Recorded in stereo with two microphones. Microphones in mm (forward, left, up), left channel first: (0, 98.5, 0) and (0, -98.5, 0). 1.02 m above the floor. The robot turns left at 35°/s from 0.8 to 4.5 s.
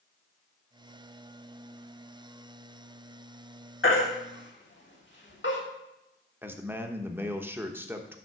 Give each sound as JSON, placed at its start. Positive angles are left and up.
{"t": 3.8, "sound": "a baby crying", "side_deg": 85, "distance_m": 1.7}
{"t": 6.4, "sound": "a man speaking", "side_deg": -10, "distance_m": 1.0}